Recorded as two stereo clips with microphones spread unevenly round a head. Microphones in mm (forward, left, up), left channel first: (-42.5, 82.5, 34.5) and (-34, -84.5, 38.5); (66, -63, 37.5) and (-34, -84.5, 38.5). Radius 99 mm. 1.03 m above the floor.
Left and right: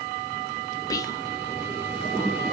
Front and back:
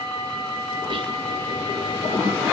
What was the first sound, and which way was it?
Whispering, 155° left.